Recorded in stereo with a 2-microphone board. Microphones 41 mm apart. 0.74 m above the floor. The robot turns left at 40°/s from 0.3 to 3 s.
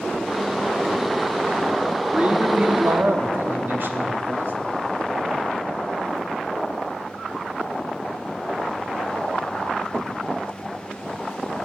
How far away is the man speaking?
About 1.1 m.